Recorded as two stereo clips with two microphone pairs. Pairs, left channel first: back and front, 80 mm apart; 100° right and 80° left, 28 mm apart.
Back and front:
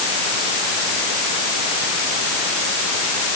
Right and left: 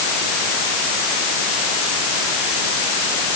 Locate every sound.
Only background noise.